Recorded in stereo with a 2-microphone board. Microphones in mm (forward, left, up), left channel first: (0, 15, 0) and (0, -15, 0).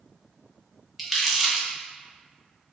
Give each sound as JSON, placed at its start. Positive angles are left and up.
{"t": 1.0, "sound": "crumpling", "side_deg": 0, "distance_m": 1.0}